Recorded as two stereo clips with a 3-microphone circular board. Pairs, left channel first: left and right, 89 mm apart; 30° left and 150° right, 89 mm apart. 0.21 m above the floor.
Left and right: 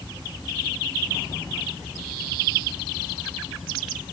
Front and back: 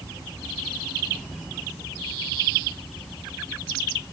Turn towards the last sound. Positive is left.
No sound to turn to.